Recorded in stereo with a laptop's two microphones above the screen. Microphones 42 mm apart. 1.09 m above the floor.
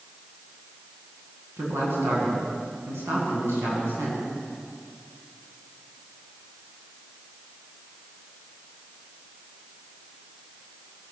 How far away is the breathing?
I don't hear breathing.